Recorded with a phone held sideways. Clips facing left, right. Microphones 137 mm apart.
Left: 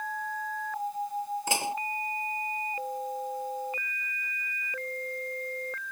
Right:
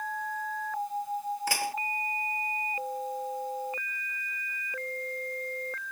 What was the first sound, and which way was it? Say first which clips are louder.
Dishes clattering: left 3 dB; 20° left (ahead or behind).